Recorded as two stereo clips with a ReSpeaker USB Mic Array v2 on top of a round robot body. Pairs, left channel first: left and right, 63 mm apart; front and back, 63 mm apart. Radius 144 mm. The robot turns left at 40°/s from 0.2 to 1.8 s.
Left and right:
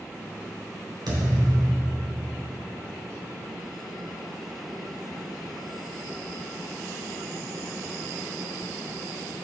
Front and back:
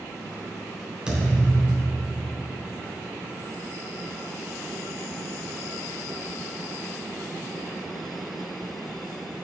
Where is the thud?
100° right, 3.5 m; by 2.3 s 130° right, 3.5 m.